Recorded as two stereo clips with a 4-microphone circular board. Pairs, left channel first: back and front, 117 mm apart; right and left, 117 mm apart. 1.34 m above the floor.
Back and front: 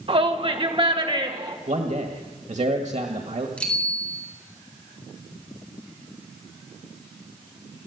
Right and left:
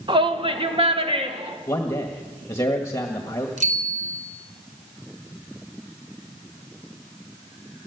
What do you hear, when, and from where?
0.1 s a shout: 40° left, 1.6 m; by 1.6 s 50° left, 3 m
1.7 s a man speaking: 20° right, 1.7 m
3.6 s a bicycle bell: 100° left, 4 m